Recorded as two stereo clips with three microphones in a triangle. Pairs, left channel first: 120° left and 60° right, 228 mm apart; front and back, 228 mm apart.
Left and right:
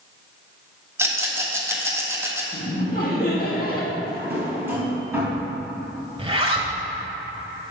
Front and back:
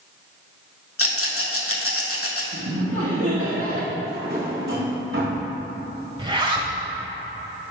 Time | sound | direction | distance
1.0 | a rattle | 20° left | 1.1 m
2.5 | laughter | 170° left | 2.0 m
4.0 | a drawer | 140° right | 3 m
6.2 | a zipper | 120° right | 1.2 m